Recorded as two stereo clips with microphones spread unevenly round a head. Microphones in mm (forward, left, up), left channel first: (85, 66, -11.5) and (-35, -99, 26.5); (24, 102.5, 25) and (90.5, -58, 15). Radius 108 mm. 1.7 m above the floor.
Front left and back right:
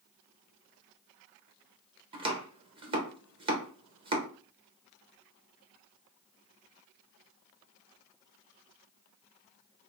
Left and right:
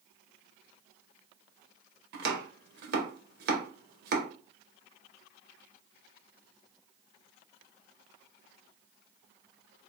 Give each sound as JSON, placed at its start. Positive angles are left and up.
{"t": 2.1, "sound": "chopping", "azimuth_deg": -75, "distance_m": 0.9}